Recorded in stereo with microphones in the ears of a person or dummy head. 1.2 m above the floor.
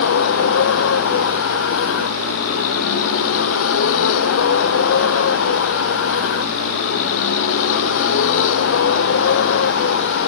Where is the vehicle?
90° left; by 10.3 s 75° left (ahead or behind).